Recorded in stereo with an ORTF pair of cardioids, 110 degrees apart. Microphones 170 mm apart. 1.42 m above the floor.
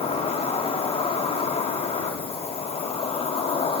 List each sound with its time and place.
0.0 s an insect: 35° left, 6 m